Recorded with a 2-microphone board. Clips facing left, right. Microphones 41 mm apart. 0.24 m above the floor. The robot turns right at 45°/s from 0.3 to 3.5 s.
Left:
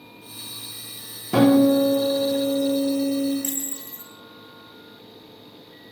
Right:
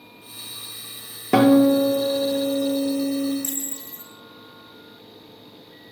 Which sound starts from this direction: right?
A guitar, at 1.3 s.